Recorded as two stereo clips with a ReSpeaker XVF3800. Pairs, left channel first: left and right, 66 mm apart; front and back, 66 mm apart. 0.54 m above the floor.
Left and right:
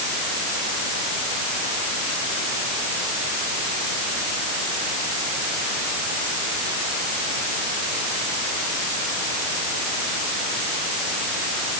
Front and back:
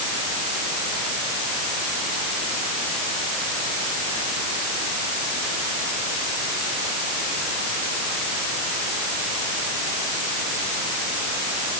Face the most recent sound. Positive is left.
No sound to turn to.